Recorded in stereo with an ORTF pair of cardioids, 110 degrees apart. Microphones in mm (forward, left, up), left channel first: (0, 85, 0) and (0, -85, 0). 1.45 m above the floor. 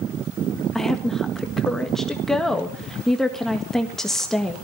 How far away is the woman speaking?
About 1.8 m.